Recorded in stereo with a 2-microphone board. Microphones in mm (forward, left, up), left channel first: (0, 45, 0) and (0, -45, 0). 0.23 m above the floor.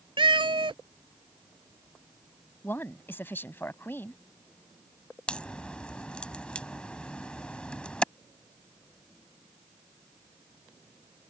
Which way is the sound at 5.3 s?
10° left (ahead or behind).